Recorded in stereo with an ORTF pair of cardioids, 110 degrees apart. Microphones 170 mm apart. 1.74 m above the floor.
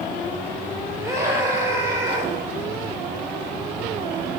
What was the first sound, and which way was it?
A scream, 15° right.